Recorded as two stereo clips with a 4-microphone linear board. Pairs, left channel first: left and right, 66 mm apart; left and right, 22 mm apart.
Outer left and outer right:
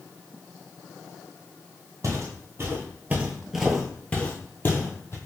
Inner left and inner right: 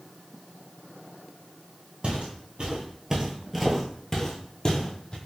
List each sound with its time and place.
2.0 s footsteps: 55° right (ahead or behind), 1.3 m; by 5.2 s 40° left (ahead or behind), 1.3 m